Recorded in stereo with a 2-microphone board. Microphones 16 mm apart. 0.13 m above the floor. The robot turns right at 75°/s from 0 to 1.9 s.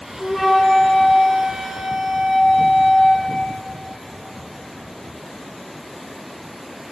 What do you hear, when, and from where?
0.2 s a flute: 20° left, 3 m; by 3.2 s 150° left, 3 m